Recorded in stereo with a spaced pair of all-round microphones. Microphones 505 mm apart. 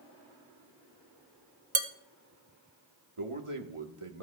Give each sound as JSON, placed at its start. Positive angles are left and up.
{"t": 1.8, "sound": "dishes clattering", "side_deg": -50, "distance_m": 0.8}
{"t": 3.2, "sound": "a man speaking", "side_deg": -85, "distance_m": 1.3}